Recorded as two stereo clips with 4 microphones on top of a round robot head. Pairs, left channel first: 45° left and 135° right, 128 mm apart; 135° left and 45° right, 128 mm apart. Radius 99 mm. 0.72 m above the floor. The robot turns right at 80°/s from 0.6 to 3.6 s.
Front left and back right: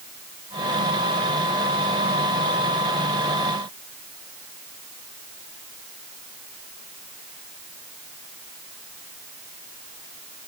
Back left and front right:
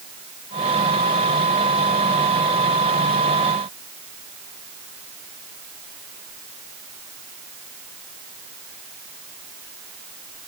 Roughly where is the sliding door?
No sliding door in this recording.